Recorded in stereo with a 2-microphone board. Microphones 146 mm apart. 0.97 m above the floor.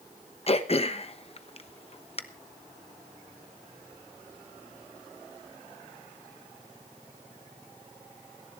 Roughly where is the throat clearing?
Left.